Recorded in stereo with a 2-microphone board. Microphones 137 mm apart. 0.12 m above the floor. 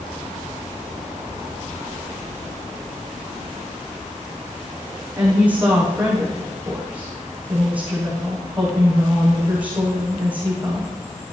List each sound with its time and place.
5.2 s a woman speaking: 10° right (ahead or behind), 7 m